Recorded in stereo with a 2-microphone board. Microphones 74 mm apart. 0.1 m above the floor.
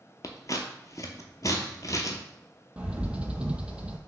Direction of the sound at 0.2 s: 55° left (ahead or behind).